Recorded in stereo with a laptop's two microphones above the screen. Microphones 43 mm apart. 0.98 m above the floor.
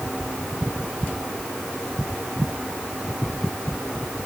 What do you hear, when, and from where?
Only background noise.